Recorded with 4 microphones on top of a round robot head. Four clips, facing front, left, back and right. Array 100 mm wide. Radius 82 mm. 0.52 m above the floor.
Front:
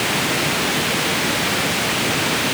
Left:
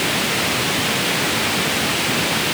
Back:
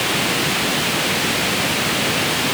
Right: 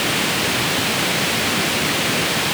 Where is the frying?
No frying in this recording.